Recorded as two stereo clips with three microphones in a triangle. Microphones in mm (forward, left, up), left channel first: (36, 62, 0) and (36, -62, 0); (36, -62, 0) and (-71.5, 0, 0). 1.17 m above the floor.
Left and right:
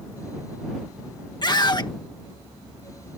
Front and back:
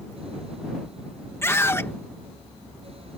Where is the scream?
40° left.